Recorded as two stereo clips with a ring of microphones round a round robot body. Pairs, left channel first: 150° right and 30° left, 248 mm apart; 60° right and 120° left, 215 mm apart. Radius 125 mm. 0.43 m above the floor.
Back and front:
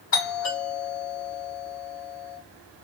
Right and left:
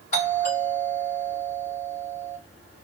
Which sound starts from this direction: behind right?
A doorbell, at 0.1 s.